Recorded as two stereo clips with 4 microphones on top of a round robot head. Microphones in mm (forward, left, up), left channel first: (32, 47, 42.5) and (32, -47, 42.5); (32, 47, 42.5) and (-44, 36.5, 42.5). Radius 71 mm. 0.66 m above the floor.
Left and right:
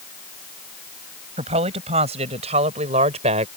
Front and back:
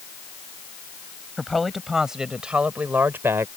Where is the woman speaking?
80° right; by 3.5 s 105° right.